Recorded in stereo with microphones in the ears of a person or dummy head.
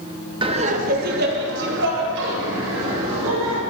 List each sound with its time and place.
0.4 s laughter: 20° right (ahead or behind), 0.9 m; by 3.6 s 70° right (ahead or behind), 3.5 m